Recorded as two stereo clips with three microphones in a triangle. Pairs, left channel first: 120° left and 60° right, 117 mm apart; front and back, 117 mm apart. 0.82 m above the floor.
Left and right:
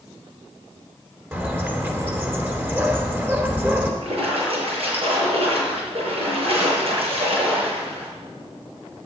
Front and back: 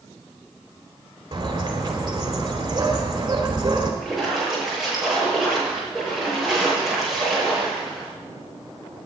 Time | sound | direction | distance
1.3 | a bird | 135° right | 2.5 m
4.0 | a splash | 90° right | 7 m